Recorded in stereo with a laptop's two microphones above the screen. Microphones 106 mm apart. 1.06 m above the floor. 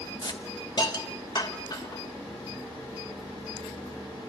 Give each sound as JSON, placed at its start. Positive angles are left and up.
{"t": 0.2, "sound": "a hiss", "side_deg": 45, "distance_m": 2.5}